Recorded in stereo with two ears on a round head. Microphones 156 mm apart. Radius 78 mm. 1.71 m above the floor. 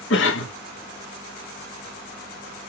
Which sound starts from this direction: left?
A cough, at 0.1 s.